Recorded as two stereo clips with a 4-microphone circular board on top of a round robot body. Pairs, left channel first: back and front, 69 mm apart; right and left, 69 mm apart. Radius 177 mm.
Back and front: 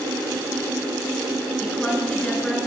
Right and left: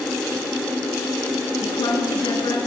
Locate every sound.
1.6 s a woman speaking: 100° right, 6.5 m